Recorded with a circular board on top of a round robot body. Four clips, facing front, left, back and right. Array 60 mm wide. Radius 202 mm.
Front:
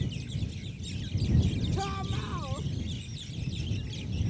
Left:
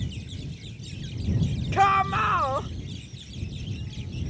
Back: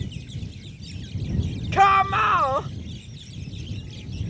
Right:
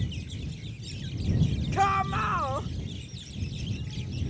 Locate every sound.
1.7 s a shout: 165° left